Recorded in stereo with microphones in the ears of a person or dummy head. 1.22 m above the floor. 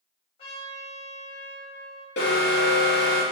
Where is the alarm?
60° left (ahead or behind), 0.6 m.